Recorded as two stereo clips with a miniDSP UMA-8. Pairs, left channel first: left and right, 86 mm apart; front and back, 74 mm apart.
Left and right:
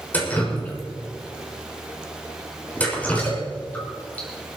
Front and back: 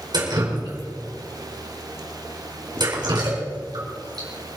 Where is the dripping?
160° left, 4.5 m.